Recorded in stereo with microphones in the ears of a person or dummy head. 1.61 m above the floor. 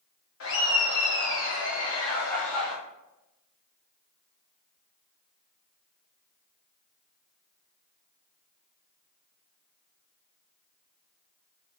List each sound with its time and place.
0.4 s laughter: 80° left, 0.9 m; by 2.8 s 5° left (ahead or behind), 1.0 m